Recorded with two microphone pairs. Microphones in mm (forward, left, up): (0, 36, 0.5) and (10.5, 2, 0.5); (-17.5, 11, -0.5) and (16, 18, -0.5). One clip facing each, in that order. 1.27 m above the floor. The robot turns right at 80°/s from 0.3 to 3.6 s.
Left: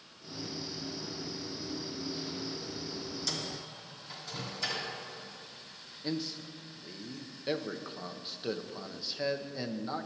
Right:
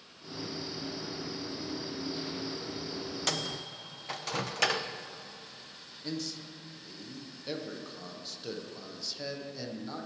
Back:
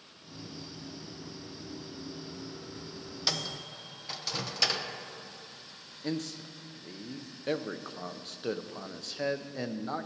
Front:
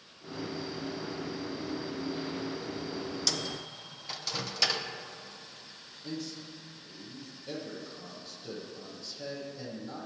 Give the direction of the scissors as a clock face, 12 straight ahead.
I don't hear scissors.